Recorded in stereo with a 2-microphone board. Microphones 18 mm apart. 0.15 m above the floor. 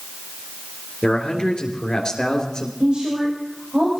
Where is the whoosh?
No whoosh in this recording.